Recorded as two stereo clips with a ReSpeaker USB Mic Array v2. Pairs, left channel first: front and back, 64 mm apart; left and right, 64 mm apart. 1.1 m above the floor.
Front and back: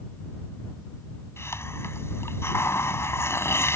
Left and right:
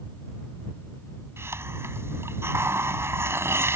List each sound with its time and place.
1.4 s a hiss: 45° right